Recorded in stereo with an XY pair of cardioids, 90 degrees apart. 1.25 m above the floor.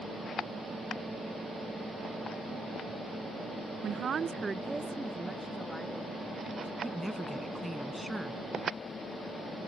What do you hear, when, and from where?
3.8 s a woman speaking: 70° right; by 6.7 s 15° left
6.8 s a woman speaking: 5° right